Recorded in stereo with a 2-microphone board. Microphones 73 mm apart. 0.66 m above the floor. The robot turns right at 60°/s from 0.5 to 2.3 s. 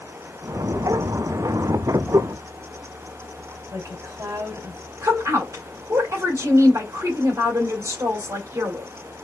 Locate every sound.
3.7 s a woman speaking: 45° right (ahead or behind), 3 m
5.0 s a woman speaking: 45° right (ahead or behind), 2.5 m